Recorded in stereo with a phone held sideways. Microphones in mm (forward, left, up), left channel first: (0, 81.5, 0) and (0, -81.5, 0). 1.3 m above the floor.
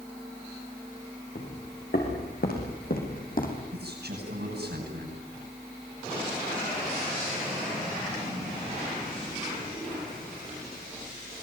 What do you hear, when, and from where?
1.4 s footsteps: 75° left (ahead or behind), 7.5 m; by 3.6 s 60° left (ahead or behind), 4.5 m
3.7 s a man speaking: 85° right, 10 m